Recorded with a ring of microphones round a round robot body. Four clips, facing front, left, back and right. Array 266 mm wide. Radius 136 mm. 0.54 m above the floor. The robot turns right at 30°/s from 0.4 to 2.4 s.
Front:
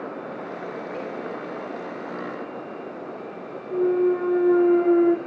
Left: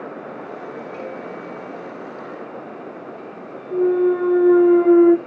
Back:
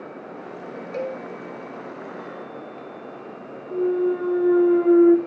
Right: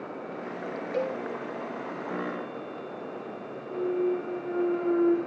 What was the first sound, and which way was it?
A cowbell, 140° right.